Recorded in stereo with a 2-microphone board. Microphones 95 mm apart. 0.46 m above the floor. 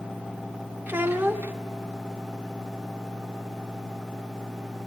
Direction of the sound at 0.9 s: 20° right (ahead or behind).